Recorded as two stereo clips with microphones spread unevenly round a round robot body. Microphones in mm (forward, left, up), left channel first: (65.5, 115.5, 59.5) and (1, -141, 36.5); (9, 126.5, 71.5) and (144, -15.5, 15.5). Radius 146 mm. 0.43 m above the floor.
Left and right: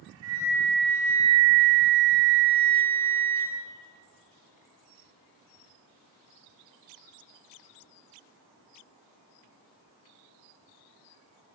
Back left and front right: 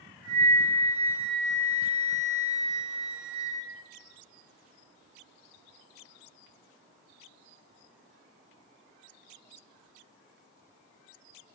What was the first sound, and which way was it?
A flute, 140° right.